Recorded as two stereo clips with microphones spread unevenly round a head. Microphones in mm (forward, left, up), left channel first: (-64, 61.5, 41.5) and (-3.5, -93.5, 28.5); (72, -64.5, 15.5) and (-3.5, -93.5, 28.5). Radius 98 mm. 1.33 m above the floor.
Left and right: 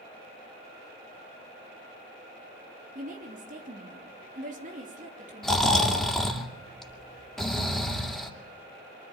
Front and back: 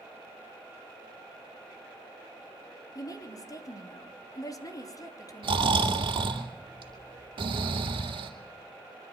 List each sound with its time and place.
3.0 s a woman speaking: 20° right, 3 m
5.4 s snoring: 165° right, 2.5 m